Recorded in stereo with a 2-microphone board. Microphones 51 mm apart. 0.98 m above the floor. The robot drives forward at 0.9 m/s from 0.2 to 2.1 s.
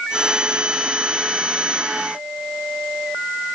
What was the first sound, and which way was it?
Only background noise.